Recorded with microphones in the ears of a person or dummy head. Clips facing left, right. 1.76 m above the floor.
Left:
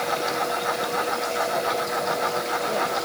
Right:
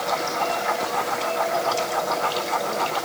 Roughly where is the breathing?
No breathing in this recording.